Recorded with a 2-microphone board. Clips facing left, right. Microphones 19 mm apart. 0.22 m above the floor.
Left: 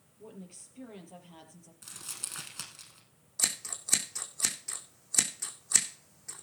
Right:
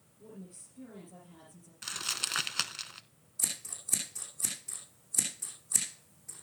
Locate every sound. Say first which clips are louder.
0.2 s a woman speaking: left 1 dB; 60° left (ahead or behind), 4.5 m
1.8 s crumpling: right 10 dB; 65° right (ahead or behind), 0.7 m
3.4 s scissors: left 4 dB; 60° left (ahead or behind), 2.5 m